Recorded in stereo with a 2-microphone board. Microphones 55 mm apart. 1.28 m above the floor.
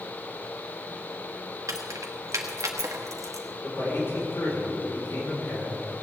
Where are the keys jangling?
85° right, 1.7 m.